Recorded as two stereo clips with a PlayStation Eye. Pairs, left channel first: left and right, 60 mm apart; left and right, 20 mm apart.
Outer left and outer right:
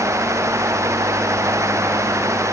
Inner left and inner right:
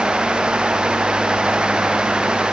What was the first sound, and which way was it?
Only background noise.